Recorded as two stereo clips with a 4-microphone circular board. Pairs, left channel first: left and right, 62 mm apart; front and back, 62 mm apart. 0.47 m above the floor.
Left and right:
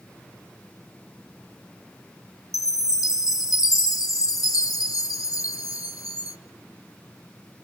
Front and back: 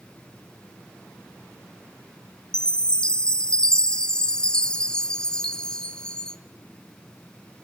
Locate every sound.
2.5 s a chime: 80° left, 0.8 m